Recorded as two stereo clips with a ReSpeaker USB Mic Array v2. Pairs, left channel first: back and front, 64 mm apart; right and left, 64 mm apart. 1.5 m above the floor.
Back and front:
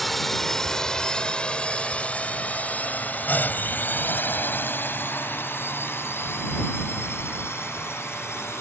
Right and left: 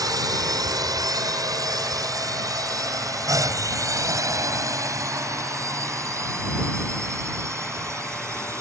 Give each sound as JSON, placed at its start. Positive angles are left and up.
{"t": 0.0, "sound": "a drone", "azimuth_deg": 90}